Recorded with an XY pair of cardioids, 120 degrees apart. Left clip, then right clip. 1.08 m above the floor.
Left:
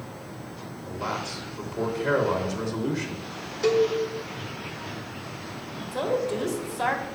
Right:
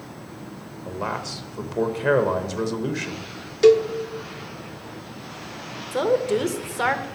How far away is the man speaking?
About 0.9 m.